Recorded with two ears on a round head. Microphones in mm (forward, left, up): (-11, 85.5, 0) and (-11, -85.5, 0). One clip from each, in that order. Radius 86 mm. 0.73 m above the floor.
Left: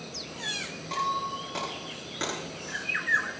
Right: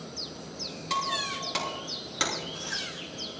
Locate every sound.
0.9 s breaking glass: 85° right, 6 m